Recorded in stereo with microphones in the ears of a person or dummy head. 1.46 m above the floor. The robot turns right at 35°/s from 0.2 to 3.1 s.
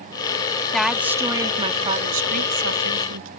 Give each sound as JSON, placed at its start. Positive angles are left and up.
{"t": 0.7, "sound": "a woman speaking", "azimuth_deg": 175}